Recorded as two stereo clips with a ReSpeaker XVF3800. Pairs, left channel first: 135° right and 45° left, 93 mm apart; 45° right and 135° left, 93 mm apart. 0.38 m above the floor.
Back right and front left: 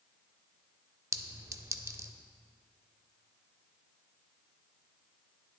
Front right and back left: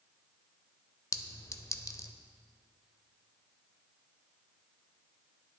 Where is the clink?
Straight ahead, 0.6 m.